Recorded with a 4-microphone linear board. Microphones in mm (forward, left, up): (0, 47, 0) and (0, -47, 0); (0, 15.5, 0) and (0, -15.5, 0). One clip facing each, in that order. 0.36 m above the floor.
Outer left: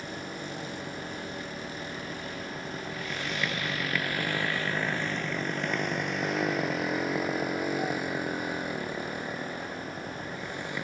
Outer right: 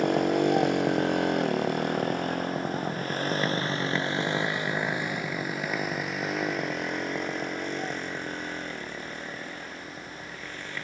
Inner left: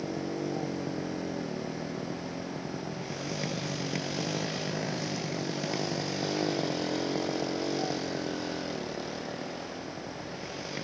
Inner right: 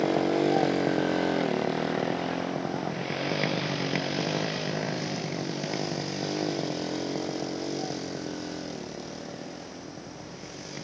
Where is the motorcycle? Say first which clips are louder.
Outer right 15 dB, inner right 9 dB; 85° right; by 10.8 s 20° left (ahead or behind).